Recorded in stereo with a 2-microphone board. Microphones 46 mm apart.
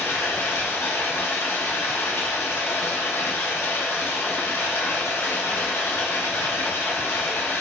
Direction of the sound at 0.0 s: 85° left.